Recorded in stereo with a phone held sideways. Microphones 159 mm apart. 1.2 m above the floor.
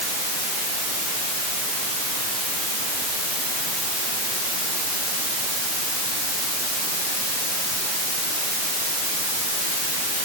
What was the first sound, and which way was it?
Only background noise.